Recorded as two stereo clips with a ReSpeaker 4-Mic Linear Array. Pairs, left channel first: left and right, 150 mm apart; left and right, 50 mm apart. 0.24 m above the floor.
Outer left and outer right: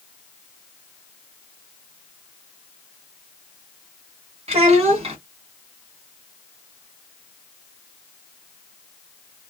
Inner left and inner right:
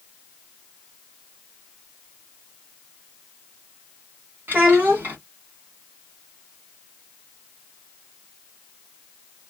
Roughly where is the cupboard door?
I don't hear a cupboard door.